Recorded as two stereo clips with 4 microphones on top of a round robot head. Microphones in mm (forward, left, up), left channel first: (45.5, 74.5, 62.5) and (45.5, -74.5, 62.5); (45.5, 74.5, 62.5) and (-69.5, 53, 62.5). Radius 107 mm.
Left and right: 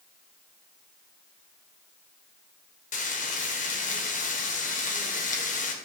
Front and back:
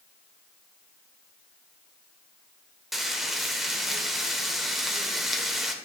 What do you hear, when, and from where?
2.9 s frying: 100° left, 1.5 m